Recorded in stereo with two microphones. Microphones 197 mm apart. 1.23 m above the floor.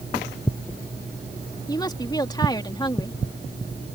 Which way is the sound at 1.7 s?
20° left (ahead or behind).